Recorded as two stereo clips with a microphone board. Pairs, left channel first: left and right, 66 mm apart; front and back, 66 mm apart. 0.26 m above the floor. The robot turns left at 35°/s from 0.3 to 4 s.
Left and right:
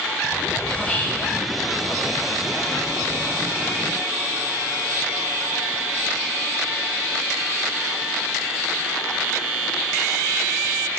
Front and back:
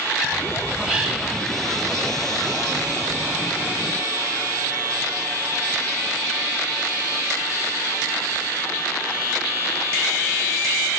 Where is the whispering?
125° left, 1.4 m; by 1.3 s 105° left, 1.4 m.